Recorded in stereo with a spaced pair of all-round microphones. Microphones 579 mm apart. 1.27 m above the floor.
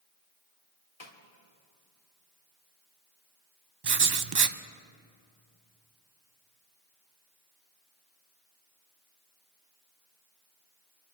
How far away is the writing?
About 0.5 m.